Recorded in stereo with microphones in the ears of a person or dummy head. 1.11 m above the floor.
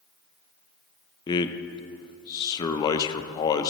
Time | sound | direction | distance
1.3 | a man speaking | 25° left (ahead or behind) | 0.5 m